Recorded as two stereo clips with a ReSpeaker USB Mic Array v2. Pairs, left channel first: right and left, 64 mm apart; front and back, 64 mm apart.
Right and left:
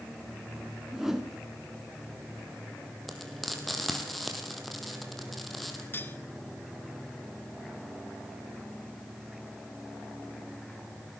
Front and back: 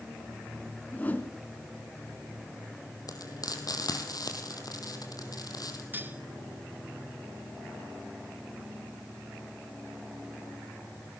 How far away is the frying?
About 3 m.